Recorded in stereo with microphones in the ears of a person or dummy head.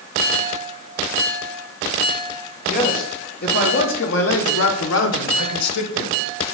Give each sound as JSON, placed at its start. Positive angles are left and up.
{"t": 2.7, "sound": "a man speaking", "side_deg": 40, "distance_m": 1.6}